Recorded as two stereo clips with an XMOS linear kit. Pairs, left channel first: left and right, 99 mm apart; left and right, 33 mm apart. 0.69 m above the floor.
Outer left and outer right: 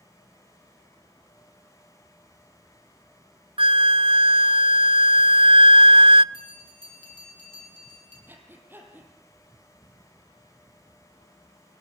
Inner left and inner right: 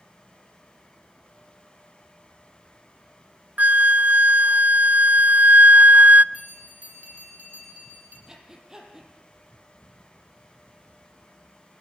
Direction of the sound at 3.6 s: 65° right (ahead or behind).